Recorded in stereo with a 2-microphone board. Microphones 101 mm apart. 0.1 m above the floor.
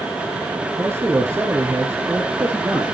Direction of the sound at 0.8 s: 25° right (ahead or behind).